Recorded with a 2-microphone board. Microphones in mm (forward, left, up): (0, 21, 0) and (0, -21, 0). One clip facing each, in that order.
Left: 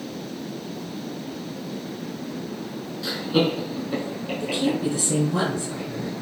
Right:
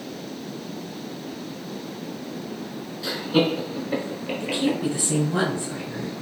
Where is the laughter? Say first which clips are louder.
Right 1 dB; centre (ahead or behind), 1.2 m; by 4.8 s 20° right (ahead or behind), 1.1 m.